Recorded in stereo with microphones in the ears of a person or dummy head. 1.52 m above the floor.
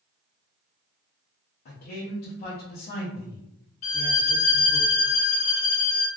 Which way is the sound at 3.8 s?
40° left (ahead or behind).